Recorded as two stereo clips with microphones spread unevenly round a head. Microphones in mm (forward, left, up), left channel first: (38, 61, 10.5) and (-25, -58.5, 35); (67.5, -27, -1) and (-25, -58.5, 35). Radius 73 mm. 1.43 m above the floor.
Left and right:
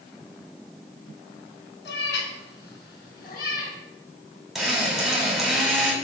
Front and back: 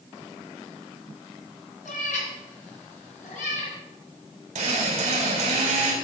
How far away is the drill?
About 4.5 m.